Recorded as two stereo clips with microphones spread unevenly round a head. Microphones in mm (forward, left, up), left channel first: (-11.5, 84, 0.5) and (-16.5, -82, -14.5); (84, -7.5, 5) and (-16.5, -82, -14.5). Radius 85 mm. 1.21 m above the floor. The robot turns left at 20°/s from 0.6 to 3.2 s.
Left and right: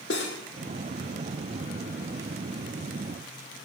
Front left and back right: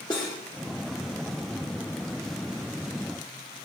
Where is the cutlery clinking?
105° left, 2 m.